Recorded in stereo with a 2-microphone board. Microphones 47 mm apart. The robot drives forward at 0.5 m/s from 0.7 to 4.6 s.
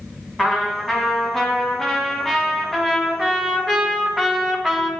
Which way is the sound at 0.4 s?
Centre (ahead or behind).